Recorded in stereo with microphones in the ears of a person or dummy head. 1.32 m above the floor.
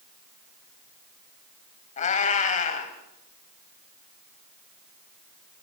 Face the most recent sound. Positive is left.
turn(degrees=40)  # may be behind; listen again after turning